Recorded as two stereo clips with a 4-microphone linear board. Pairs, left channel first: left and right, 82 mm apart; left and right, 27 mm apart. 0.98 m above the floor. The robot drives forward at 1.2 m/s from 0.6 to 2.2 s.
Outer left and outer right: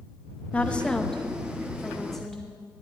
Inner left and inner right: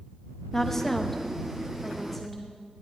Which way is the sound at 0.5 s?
15° left (ahead or behind).